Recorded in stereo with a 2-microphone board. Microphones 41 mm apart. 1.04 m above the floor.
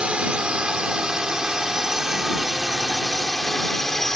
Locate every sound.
0.0 s a drone: 30° right (ahead or behind); by 4.2 s 10° left (ahead or behind)